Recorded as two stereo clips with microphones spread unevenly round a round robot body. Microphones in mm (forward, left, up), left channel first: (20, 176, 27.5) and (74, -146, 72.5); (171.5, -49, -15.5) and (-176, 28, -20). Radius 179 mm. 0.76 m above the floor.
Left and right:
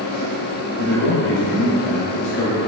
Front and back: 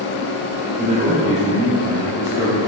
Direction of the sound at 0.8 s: 115° left.